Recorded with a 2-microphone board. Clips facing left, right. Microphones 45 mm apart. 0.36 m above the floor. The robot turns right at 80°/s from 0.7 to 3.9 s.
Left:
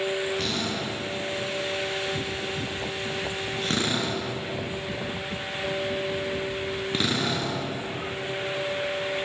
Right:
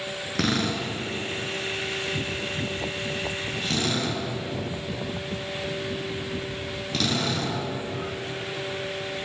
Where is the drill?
75° right (ahead or behind), 6.5 m; by 7.6 s 25° left (ahead or behind), 6.5 m.